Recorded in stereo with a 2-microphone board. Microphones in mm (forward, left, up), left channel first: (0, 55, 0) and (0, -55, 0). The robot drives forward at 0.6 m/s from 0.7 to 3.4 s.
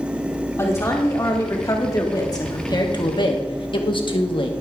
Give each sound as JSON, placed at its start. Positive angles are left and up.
{"t": 0.6, "sound": "a woman speaking", "side_deg": 25, "distance_m": 2.5}